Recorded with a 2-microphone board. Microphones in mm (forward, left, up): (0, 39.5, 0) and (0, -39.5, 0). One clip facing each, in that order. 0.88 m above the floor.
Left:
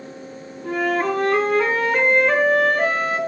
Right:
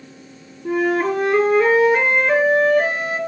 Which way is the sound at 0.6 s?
60° left (ahead or behind).